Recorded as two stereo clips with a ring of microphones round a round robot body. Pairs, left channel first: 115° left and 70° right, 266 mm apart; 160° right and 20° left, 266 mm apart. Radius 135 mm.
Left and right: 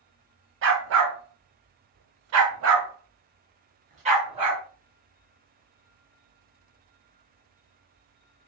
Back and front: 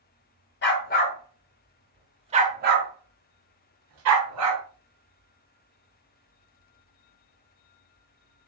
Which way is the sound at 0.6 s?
110° right.